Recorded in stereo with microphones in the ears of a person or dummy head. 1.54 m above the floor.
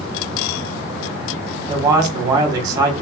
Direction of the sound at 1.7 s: 25° right (ahead or behind).